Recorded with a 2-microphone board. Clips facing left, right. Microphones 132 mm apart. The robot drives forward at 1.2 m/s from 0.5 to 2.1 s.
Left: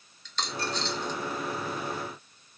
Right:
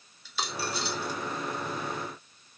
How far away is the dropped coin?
About 1.0 m.